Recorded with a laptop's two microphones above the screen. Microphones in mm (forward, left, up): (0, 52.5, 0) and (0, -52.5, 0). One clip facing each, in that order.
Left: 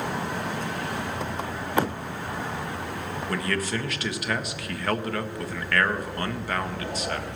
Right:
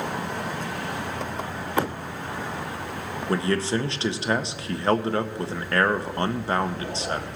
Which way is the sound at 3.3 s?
30° right (ahead or behind).